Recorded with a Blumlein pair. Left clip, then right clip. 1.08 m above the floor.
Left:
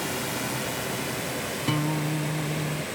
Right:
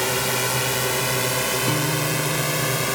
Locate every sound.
0.0 s a drone: 25° right; by 3.0 s 35° right
1.7 s a guitar: straight ahead